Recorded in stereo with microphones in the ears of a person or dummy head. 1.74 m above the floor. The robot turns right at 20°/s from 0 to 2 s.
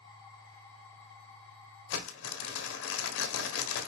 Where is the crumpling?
70° left (ahead or behind), 1.5 m.